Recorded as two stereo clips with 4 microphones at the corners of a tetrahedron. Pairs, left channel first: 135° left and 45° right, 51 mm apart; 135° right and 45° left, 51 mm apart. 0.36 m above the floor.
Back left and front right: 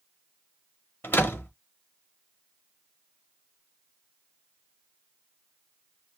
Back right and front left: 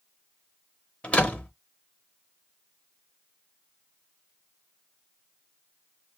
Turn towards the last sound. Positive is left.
turn(degrees=165)